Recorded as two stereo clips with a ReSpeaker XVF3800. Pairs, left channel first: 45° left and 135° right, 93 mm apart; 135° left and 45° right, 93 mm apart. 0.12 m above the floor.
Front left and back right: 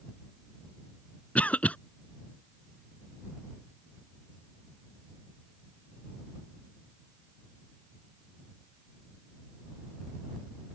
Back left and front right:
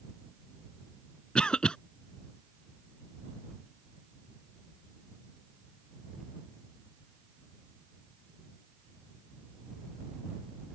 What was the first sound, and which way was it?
A cough, 75° left.